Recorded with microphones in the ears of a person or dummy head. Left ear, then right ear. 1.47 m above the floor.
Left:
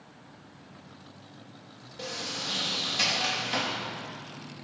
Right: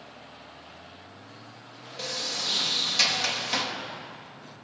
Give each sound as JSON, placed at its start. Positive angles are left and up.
{"t": 2.0, "sound": "a sliding door", "side_deg": -30, "distance_m": 3.0}